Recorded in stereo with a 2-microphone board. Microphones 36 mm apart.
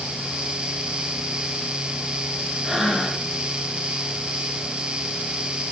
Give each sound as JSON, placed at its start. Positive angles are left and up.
{"t": 2.6, "sound": "breathing", "side_deg": -10, "distance_m": 4.0}